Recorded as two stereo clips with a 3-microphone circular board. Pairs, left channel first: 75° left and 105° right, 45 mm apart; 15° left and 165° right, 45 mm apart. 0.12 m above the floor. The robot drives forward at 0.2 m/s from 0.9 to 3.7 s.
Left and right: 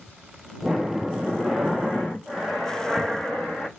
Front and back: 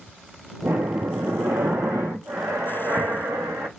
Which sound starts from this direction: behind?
Breathing, at 0.6 s.